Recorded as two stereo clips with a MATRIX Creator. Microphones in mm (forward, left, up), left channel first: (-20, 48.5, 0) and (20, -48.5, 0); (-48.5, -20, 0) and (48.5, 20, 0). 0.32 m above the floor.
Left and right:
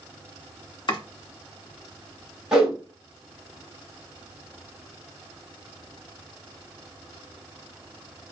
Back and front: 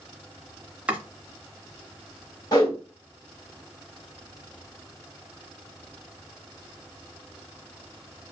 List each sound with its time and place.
0.9 s chopping: 95° left, 0.7 m
2.5 s a whoosh: 150° right, 1.4 m